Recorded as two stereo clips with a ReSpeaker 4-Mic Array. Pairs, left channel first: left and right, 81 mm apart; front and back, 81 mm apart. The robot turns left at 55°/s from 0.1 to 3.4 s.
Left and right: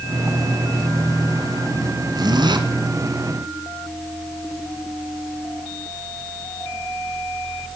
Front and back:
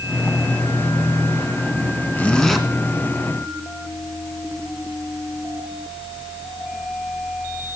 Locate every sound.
2.1 s a zipper: 65° right, 1.2 m; by 2.6 s 95° right, 1.2 m